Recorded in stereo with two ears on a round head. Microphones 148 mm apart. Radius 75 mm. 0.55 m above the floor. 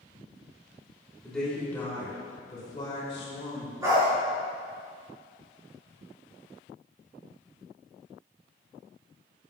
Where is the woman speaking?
5° left (ahead or behind), 2.5 m; by 3.7 s 45° left (ahead or behind), 3 m.